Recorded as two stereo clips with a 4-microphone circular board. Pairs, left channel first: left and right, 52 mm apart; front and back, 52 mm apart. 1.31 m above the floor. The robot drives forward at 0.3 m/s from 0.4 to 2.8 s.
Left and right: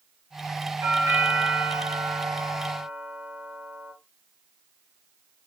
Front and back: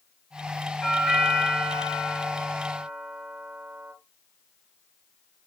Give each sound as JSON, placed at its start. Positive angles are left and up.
{"t": 0.8, "sound": "a doorbell", "azimuth_deg": -85, "distance_m": 0.8}